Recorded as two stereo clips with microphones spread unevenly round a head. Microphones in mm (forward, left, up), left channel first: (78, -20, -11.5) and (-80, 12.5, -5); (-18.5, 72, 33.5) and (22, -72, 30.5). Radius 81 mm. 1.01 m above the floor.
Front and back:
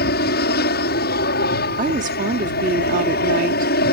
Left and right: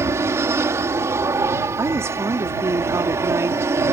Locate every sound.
0.0 s an aircraft: 5° right
1.8 s a woman speaking: 150° right